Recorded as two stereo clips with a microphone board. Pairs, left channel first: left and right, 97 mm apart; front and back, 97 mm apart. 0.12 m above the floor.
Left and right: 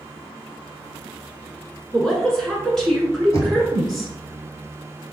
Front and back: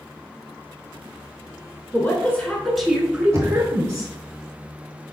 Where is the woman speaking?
15° left, 1.1 m; by 4.1 s 175° left, 1.3 m.